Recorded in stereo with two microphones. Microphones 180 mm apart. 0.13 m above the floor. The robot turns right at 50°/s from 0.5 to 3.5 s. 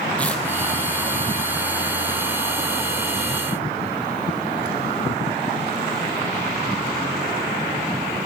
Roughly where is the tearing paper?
Centre.